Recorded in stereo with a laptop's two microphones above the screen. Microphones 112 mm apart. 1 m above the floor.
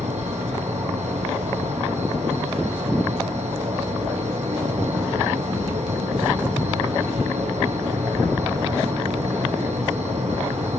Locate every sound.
0.0 s an insect: 85° right, 7 m